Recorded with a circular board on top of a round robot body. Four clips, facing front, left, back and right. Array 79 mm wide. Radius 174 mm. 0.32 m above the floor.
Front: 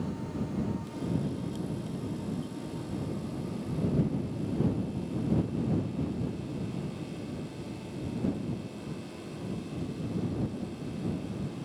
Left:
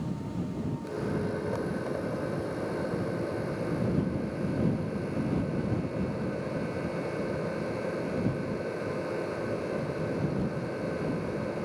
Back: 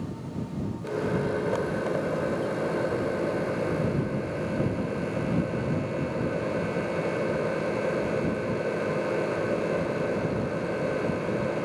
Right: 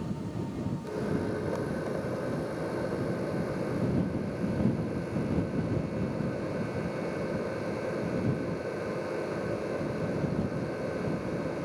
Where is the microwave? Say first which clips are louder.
Right 1 dB, back 6 dB; straight behind.